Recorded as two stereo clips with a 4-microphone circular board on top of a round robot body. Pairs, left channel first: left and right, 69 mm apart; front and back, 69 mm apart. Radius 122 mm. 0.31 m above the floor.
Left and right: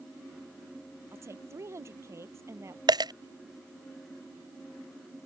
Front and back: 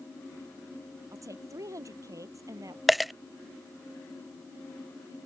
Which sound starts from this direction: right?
A dropped coin, at 2.9 s.